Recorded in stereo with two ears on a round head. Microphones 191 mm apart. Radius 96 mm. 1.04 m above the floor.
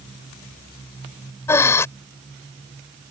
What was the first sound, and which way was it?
Breathing, 15° left (ahead or behind).